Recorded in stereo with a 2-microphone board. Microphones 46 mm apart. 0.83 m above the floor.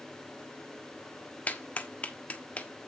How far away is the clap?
About 1.3 m.